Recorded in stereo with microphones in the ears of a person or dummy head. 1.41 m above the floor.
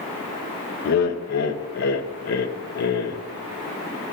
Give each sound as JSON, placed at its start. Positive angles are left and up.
{"t": 0.8, "sound": "laughter", "side_deg": 55, "distance_m": 0.7}